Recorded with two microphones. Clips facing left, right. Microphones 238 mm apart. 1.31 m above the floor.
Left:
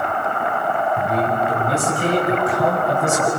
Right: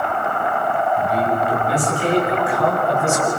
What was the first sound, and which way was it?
A man speaking, 50° left (ahead or behind).